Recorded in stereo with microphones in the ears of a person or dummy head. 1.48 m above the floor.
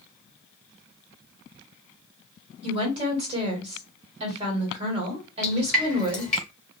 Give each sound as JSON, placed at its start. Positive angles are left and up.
{"t": 2.6, "sound": "a woman speaking", "side_deg": -30, "distance_m": 1.4}
{"t": 5.4, "sound": "dripping", "side_deg": 5, "distance_m": 0.8}